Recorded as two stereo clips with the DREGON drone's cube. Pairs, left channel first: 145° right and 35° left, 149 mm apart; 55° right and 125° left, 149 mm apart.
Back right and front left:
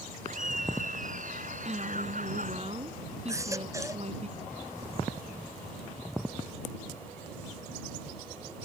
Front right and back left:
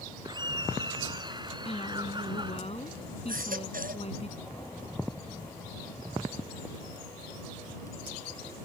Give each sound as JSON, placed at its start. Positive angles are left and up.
{"t": 0.2, "sound": "laughter", "azimuth_deg": 65}
{"t": 1.6, "sound": "a woman speaking", "azimuth_deg": -10}
{"t": 3.3, "sound": "a baby crying", "azimuth_deg": 105}